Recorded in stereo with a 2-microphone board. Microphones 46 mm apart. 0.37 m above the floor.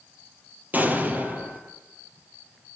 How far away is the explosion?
About 3.5 m.